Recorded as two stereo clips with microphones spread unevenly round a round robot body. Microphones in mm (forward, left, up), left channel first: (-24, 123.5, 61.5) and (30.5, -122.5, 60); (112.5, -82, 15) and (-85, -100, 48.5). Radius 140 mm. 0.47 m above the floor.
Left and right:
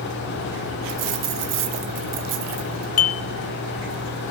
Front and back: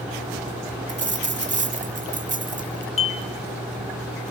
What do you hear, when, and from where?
0.9 s a dropped coin: 120° right, 1.5 m
3.0 s dishes clattering: 50° left, 0.7 m